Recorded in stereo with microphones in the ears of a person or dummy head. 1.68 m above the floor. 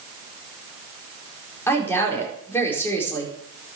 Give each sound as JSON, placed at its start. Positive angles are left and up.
{"t": 1.7, "sound": "a woman speaking", "side_deg": 15, "distance_m": 5.0}